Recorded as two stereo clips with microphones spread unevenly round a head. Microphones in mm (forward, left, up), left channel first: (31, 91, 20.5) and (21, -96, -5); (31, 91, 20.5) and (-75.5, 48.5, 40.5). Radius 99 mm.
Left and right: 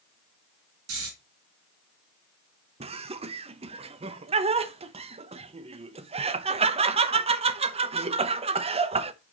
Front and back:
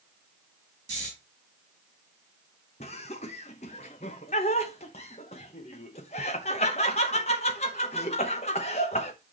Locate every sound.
0.9 s snoring: 105° right, 3.5 m
2.8 s laughter: 30° right, 0.7 m